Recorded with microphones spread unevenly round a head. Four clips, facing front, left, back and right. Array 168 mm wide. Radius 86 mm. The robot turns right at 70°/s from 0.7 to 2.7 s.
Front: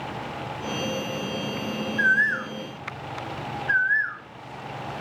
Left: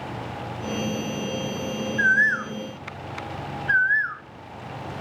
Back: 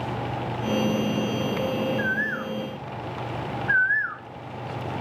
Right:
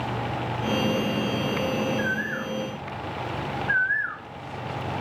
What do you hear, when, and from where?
2.0 s a bird: 30° left, 0.6 m; by 4.2 s 80° left, 0.6 m